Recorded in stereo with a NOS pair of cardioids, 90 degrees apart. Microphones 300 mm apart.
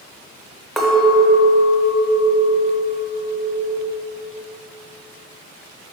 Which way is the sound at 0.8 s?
Straight ahead.